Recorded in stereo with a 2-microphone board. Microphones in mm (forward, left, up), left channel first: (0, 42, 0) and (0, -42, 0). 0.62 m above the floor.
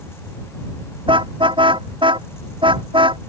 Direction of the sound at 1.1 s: 85° right.